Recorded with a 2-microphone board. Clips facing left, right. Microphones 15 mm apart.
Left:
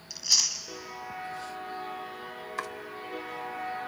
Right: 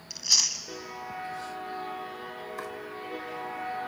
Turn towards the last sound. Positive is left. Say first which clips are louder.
# left 4 dB
turn(degrees=35)  # may be behind; listen again after turning